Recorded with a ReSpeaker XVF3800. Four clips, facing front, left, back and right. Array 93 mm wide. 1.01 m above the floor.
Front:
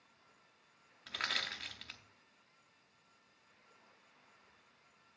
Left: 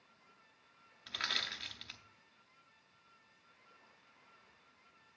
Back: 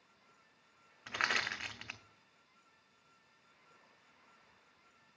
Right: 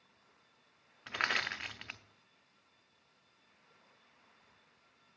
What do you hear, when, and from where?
1.1 s crushing: 130° right, 0.6 m